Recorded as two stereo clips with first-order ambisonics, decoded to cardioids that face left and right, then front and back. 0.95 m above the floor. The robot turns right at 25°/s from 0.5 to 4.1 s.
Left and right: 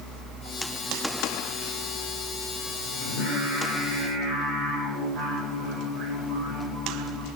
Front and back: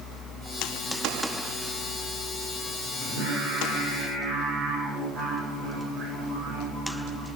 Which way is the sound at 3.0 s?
155° right.